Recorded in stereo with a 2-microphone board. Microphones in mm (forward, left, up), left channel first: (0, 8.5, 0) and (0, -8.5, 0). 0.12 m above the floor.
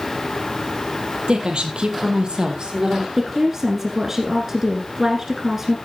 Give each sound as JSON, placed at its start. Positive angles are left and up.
{"t": 1.3, "sound": "a woman speaking", "side_deg": -65, "distance_m": 2.5}
{"t": 3.2, "sound": "a woman speaking", "side_deg": -25, "distance_m": 1.5}